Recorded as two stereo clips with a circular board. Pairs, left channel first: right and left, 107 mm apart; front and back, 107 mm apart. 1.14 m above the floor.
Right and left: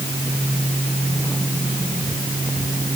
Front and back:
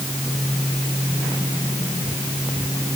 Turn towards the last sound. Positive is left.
No sound to turn to.